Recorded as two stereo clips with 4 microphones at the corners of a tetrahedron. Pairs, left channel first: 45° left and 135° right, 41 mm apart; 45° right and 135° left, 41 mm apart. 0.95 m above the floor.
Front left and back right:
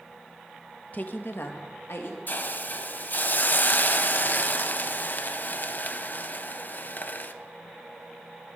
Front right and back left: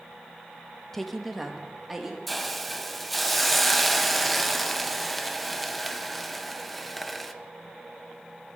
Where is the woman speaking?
30° left, 0.8 m; by 2.2 s 50° left, 2 m.